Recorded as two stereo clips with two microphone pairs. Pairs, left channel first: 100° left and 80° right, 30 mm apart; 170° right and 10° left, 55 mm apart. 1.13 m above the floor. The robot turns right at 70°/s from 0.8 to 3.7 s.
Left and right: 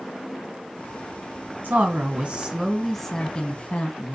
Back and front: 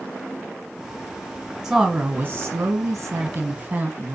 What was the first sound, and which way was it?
A woman speaking, 70° right.